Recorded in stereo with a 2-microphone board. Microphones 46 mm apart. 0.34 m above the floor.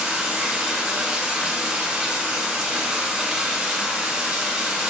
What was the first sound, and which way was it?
Running water, 25° right (ahead or behind).